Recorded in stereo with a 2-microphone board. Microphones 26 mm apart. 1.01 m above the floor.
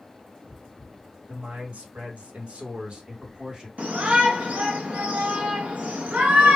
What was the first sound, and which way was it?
A man speaking, 65° right (ahead or behind).